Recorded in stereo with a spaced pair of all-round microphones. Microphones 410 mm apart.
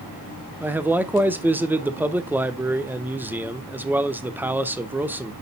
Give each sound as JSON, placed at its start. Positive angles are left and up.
{"t": 0.6, "sound": "a man speaking", "side_deg": -5, "distance_m": 0.8}